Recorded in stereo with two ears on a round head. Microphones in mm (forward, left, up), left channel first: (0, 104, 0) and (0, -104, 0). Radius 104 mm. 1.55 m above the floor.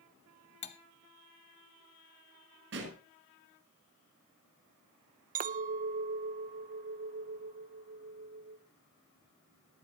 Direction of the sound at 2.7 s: 55° right (ahead or behind).